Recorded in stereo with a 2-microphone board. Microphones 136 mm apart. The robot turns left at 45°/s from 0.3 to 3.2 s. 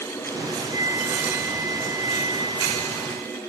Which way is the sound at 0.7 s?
125° left.